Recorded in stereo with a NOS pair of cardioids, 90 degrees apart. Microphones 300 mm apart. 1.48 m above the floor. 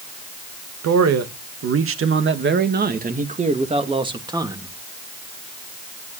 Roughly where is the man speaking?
Ahead right.